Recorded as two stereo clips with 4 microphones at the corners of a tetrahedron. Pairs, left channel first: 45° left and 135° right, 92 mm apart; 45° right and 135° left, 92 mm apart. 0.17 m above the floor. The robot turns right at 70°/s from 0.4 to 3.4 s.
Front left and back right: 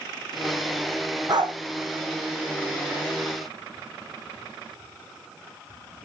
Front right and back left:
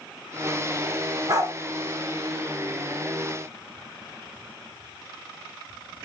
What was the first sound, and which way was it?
A dog barking, straight behind.